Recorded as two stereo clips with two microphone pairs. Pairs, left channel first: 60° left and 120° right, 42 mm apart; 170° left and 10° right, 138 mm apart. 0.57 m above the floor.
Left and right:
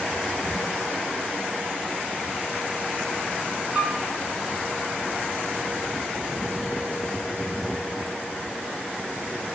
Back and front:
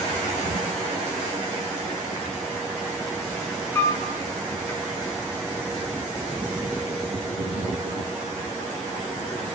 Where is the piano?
145° right, 0.6 m.